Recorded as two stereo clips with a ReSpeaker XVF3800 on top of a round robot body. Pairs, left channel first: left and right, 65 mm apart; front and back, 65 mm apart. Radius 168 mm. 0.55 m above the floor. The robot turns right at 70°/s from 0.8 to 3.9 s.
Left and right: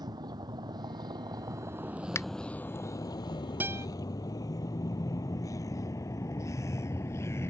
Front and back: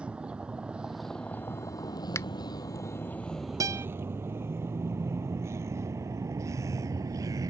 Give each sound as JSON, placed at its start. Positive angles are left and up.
{"t": 0.0, "sound": "a vehicle", "azimuth_deg": -105}
{"t": 2.1, "sound": "a finger snap", "azimuth_deg": 45}
{"t": 3.6, "sound": "a guitar", "azimuth_deg": -150}